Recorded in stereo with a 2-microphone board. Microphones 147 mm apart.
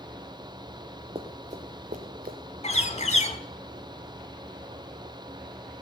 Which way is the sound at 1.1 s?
40° right (ahead or behind).